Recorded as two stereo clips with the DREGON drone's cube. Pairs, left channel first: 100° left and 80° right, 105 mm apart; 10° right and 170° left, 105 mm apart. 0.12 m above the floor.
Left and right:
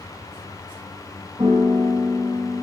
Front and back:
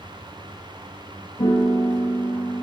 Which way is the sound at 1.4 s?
25° right.